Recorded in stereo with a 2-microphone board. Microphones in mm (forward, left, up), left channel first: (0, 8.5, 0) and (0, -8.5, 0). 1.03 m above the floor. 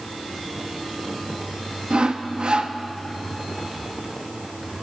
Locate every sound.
1.9 s sawing: 65° right (ahead or behind), 0.6 m